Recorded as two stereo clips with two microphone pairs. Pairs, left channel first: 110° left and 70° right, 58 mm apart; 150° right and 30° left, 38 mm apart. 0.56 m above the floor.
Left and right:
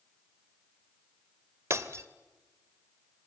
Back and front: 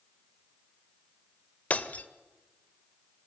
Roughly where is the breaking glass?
Right.